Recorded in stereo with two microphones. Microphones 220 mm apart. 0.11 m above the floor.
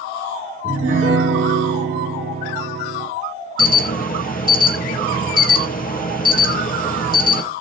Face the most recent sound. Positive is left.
turn(degrees=40)  # may be behind; listen again after turning